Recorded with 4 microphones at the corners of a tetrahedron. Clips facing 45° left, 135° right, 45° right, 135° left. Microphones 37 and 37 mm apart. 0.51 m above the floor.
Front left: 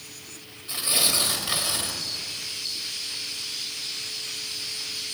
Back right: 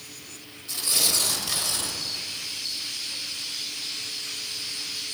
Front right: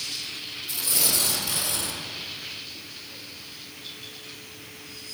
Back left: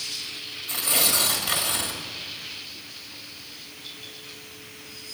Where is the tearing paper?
105° left, 1.6 m.